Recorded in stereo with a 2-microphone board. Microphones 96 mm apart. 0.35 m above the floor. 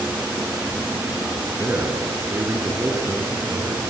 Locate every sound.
1.6 s a man speaking: 25° right (ahead or behind), 4 m